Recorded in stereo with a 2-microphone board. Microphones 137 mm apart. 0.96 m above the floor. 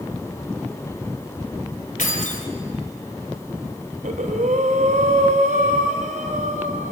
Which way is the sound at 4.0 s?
85° right.